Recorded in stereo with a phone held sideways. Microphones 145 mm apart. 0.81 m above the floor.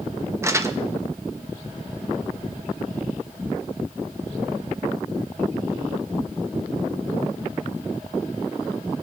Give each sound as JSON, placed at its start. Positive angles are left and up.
{"t": 0.4, "sound": "crumpling", "side_deg": -20, "distance_m": 0.6}